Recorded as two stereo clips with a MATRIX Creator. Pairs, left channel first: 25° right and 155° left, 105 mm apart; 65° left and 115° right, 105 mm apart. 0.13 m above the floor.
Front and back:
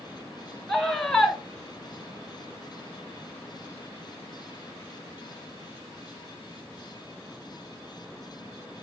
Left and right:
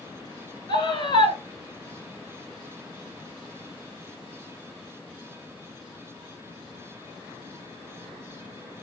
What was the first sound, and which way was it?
A scream, 60° left.